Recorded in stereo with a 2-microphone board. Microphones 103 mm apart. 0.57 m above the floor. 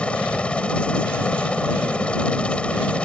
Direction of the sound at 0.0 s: 10° left (ahead or behind).